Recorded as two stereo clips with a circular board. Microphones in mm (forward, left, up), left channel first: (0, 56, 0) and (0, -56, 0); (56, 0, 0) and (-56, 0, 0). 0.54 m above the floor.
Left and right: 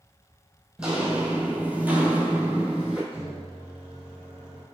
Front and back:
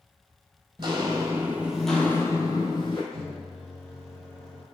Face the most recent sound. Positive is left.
turn(degrees=-80)